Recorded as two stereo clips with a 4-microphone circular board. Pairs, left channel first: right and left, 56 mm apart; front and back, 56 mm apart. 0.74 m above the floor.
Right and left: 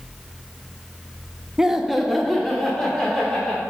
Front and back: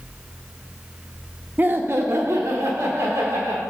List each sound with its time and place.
1.6 s laughter: 165° left, 0.6 m; by 3.6 s 165° right, 1.8 m